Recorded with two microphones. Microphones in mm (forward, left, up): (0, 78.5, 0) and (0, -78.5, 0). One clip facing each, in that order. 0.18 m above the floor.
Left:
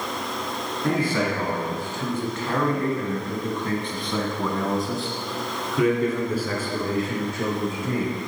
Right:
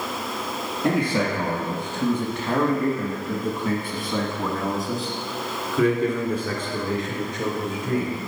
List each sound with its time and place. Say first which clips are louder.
0.8 s a man speaking: right 1 dB; 20° right (ahead or behind), 2.0 m; by 8.2 s 10° left (ahead or behind), 3.5 m